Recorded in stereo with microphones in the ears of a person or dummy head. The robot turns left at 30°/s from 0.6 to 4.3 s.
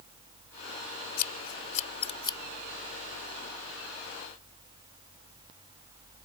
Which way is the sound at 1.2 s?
60° left (ahead or behind).